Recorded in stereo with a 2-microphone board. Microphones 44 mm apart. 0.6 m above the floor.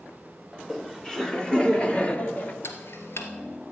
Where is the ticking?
60° left (ahead or behind), 2 m.